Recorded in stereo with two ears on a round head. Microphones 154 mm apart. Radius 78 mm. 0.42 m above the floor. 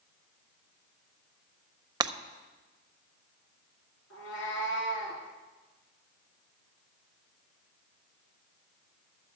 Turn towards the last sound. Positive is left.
turn(degrees=85)